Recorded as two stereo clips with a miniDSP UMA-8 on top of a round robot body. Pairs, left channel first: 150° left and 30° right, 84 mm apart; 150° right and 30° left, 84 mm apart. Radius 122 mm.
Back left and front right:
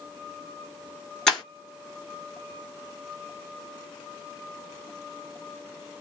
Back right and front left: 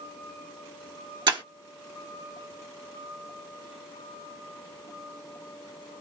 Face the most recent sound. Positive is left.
turn(degrees=65)